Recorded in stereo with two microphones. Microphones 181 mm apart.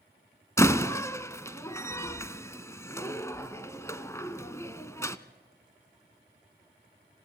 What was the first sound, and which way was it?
A door slam, 15° left (ahead or behind).